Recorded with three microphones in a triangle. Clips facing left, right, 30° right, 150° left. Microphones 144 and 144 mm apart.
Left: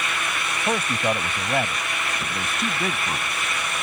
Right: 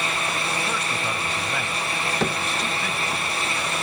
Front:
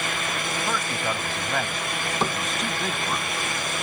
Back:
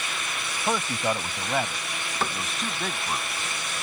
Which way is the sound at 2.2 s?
100° right.